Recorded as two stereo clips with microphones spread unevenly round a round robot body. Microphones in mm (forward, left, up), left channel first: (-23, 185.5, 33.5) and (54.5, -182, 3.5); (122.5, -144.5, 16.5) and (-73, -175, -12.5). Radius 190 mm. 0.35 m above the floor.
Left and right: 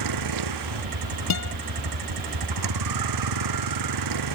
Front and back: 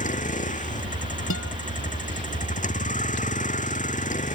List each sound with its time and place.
0.0 s a vehicle: 40° right
1.3 s a guitar: 55° left